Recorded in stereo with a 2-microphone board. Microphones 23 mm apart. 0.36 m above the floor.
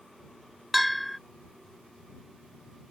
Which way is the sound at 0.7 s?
Centre (ahead or behind).